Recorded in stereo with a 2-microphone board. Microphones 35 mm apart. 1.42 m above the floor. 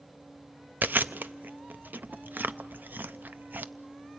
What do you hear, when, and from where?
0.8 s chewing: 70° right (ahead or behind), 0.6 m